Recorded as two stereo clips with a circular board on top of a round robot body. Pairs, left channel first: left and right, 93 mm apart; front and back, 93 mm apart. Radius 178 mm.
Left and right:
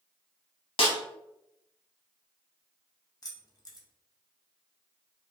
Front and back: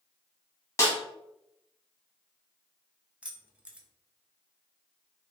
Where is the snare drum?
60° left, 0.6 m.